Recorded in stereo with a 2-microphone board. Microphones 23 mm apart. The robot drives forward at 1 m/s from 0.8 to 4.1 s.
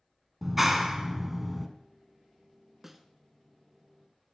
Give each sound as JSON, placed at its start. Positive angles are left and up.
{"t": 0.4, "sound": "a clap", "side_deg": -10, "distance_m": 1.0}
{"t": 2.8, "sound": "a snare drum", "side_deg": -15, "distance_m": 0.8}